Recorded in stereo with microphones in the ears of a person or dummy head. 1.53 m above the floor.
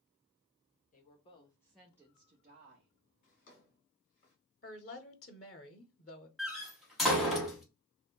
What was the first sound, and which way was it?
A woman speaking, 45° left (ahead or behind).